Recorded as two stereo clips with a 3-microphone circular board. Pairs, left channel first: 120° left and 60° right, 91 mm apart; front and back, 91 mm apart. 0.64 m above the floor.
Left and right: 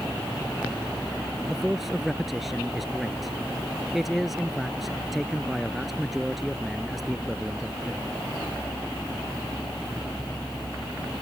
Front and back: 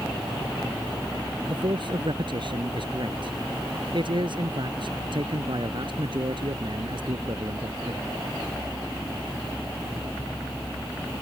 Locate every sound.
1.5 s a man speaking: 150° right